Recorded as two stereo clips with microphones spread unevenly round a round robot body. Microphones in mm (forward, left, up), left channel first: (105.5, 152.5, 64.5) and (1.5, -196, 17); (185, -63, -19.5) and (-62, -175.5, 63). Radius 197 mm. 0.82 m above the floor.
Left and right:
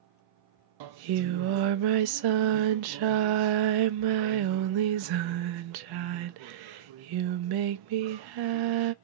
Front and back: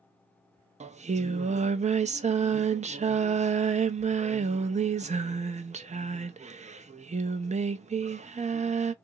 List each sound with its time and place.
0.8 s singing: 80° right, 0.6 m